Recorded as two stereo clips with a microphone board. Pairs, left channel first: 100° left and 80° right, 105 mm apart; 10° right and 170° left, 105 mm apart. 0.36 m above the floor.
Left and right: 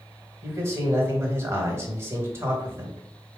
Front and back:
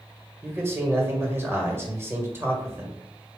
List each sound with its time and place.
0.4 s a man speaking: 130° right, 1.5 m